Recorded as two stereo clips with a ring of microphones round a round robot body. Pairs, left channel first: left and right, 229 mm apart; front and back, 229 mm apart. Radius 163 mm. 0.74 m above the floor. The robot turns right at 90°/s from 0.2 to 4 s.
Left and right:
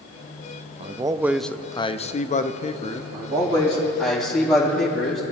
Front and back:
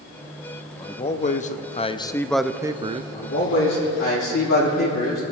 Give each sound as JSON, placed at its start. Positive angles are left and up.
{"t": 0.8, "sound": "a man speaking", "azimuth_deg": -55, "distance_m": 0.6}
{"t": 3.1, "sound": "a man speaking", "azimuth_deg": -75, "distance_m": 3.5}